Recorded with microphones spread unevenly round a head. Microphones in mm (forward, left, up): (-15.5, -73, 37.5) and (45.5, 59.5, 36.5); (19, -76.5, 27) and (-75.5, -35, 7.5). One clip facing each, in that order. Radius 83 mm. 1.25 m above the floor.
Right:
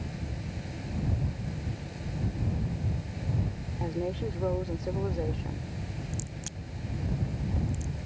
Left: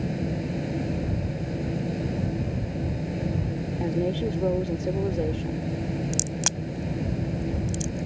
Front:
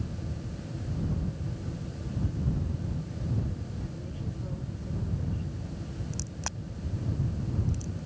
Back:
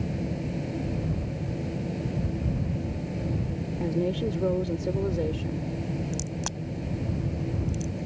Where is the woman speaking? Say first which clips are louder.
Left 6 dB, back 13 dB; 130° left.